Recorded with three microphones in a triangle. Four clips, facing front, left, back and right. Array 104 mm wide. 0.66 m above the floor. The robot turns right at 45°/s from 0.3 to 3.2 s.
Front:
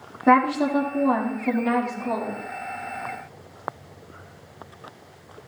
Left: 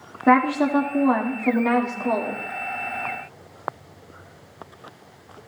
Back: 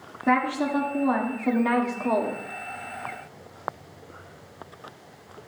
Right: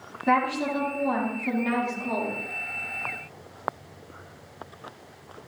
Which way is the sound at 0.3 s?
65° left.